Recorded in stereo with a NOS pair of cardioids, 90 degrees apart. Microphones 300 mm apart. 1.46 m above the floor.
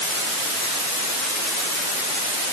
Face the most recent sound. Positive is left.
No sound to turn to.